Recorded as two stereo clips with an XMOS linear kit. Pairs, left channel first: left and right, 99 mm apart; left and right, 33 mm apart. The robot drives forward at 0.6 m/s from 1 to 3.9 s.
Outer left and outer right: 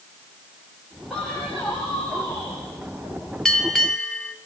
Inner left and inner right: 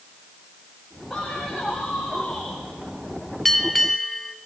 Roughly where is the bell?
Centre.